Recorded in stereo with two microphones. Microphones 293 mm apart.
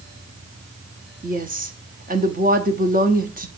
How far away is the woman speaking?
About 0.9 m.